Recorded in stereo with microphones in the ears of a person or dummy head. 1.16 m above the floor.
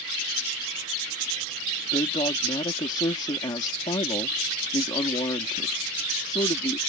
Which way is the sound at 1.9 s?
25° left (ahead or behind).